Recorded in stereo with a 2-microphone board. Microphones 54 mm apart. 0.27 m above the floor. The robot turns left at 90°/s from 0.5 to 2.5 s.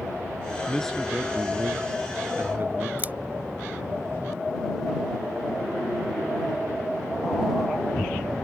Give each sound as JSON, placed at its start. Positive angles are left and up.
{"t": 0.7, "sound": "a man speaking", "azimuth_deg": 30}
{"t": 3.0, "sound": "scissors", "side_deg": -35}